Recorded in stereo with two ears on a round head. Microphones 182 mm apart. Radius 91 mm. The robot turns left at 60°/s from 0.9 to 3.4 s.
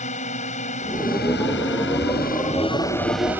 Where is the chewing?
I don't hear chewing.